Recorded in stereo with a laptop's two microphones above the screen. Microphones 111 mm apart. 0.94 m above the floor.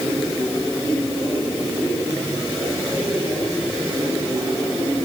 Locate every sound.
Only background noise.